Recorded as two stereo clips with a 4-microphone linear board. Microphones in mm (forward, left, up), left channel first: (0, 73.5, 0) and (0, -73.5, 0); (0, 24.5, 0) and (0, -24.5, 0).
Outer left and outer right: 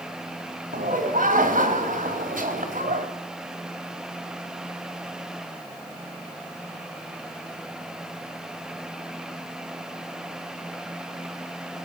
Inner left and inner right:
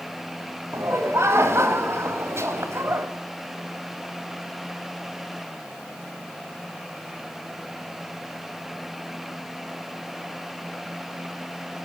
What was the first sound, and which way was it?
Laughter, 65° right (ahead or behind).